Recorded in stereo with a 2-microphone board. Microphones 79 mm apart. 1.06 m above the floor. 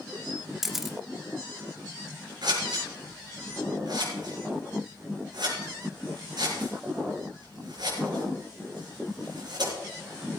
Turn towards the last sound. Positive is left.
turn(degrees=-60)  # may be behind; listen again after turning